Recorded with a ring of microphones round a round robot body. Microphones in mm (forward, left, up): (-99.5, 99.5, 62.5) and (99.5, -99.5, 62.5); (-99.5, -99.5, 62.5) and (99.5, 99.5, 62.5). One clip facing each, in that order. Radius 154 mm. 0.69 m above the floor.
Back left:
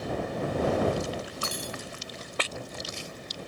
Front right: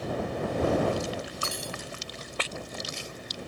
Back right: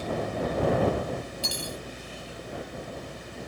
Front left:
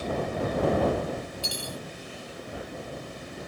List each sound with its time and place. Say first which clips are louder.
1.4 s cutlery clinking: back left 1 dB, back right 1 dB; 175° right